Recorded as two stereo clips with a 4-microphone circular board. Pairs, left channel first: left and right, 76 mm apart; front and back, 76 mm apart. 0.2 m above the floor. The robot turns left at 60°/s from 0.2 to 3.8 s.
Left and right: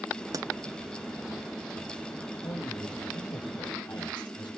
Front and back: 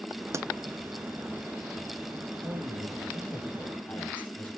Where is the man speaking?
150° left, 6 m; by 4.5 s 70° left, 6 m.